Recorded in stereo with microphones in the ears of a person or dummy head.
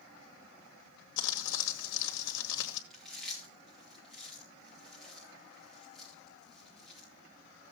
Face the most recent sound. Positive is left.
turn(degrees=5)  # may be behind; listen again after turning